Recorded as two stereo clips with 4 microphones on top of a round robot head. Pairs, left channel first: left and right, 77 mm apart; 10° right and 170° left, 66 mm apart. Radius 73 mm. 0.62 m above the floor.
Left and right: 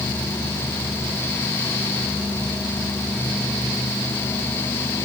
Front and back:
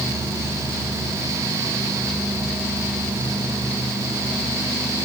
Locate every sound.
Only background noise.